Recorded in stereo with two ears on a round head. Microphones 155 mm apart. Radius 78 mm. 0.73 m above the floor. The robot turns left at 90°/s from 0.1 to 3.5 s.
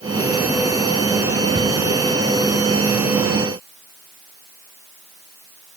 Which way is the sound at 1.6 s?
30° left (ahead or behind).